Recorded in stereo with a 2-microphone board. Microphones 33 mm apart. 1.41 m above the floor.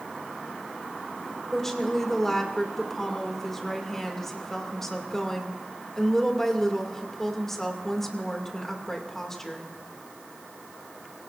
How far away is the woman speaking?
About 2 m.